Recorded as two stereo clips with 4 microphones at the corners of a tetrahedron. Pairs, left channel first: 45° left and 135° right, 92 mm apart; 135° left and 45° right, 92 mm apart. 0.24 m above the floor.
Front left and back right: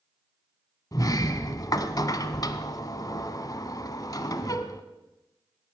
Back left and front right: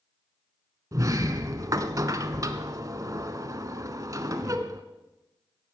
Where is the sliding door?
Straight ahead, 1.0 m.